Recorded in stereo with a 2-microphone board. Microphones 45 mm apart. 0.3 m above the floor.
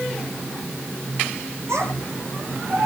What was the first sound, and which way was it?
A child speaking, 80° right.